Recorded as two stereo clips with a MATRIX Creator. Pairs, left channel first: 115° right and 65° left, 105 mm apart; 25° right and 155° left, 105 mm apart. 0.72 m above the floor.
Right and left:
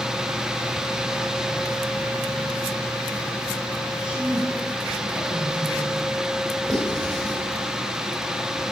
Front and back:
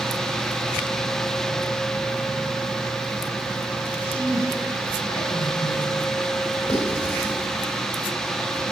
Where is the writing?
30° right, 4 m.